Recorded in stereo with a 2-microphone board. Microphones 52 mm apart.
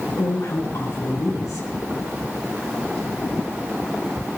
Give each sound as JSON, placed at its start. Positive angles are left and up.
{"t": 0.2, "sound": "a woman speaking", "side_deg": 80, "distance_m": 5.0}